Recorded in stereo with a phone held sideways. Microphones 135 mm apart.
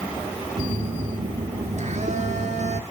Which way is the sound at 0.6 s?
60° right (ahead or behind).